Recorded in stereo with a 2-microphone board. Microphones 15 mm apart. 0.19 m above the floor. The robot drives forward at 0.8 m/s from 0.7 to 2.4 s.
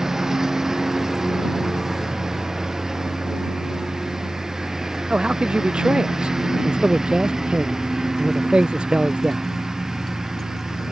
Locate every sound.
0.0 s a lawn mower: 25° right (ahead or behind)
5.1 s a man speaking: 80° right